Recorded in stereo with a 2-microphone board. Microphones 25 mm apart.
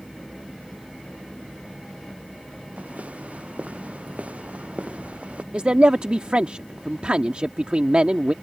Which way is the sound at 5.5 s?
55° right (ahead or behind).